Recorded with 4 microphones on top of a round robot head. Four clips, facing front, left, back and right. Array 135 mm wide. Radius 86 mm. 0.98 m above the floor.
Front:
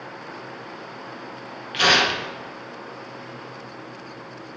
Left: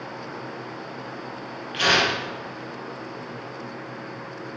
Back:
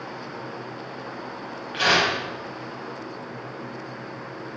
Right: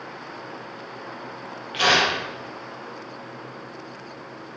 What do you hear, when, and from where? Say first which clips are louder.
1.7 s tearing paper: right 1 dB, front 1 dB; 5° right, 2 m